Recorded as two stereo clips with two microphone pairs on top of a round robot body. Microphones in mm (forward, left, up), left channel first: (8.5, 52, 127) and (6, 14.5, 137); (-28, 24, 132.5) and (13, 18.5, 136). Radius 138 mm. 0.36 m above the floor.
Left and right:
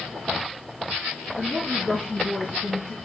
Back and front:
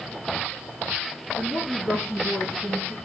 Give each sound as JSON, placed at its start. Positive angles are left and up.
{"t": 1.4, "sound": "a woman speaking", "azimuth_deg": 25, "distance_m": 7.5}